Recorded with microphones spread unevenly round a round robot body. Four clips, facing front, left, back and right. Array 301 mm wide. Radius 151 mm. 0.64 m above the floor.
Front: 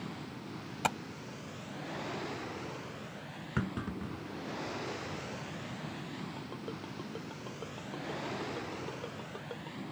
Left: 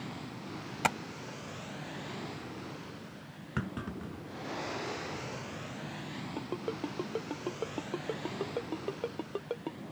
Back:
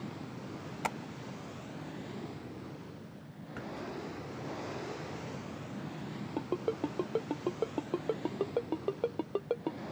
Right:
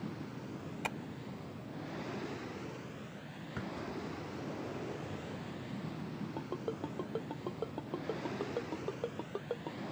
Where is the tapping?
65° left.